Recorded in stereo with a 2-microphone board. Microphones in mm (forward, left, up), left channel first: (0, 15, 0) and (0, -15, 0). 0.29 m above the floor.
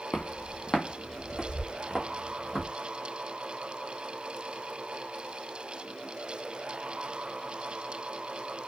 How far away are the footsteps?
About 0.5 m.